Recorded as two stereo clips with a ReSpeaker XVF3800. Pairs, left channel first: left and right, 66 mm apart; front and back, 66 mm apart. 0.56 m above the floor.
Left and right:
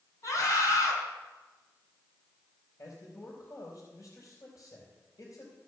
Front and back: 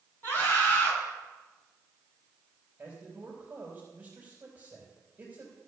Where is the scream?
55° left, 5 m.